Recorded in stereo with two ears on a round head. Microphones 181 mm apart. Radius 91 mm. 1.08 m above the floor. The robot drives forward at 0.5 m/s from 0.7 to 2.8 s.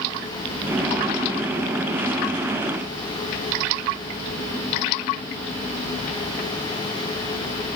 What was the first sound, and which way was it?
Only background noise.